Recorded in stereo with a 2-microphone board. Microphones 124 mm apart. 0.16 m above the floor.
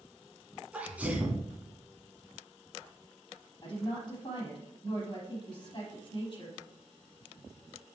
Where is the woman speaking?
35° left (ahead or behind), 5.5 m.